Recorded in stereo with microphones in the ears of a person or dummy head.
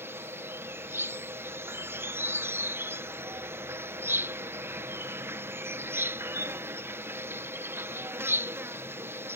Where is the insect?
10° right (ahead or behind).